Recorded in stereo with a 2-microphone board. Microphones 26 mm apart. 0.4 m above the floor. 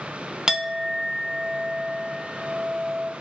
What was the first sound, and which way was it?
A clink, 20° right (ahead or behind).